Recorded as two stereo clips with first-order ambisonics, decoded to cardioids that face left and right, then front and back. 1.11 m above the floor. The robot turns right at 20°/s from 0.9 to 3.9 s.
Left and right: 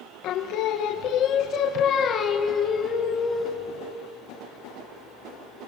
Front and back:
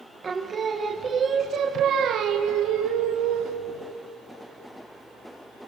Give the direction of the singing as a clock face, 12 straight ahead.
8 o'clock.